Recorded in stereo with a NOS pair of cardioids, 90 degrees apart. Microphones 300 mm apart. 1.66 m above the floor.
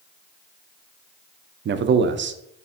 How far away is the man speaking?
About 0.5 m.